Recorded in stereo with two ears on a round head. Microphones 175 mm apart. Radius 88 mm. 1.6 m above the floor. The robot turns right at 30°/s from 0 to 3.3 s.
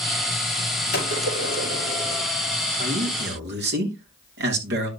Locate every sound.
0.9 s a gunshot: 120° left, 5.5 m; by 2.2 s 160° left, 5.5 m
2.8 s a man speaking: 45° right (ahead or behind), 3 m; by 4.9 s 60° right (ahead or behind), 3 m